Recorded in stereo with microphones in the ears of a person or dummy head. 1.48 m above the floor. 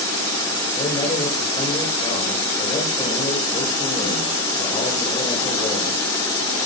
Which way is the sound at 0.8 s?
25° left (ahead or behind).